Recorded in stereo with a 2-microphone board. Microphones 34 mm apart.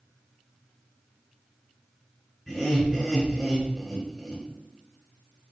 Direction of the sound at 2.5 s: 5° right (ahead or behind).